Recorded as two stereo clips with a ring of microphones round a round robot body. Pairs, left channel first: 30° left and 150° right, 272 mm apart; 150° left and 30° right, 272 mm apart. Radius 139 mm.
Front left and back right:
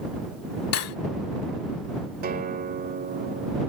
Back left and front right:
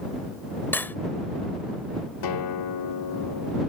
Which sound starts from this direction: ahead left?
Cutlery clinking, at 0.7 s.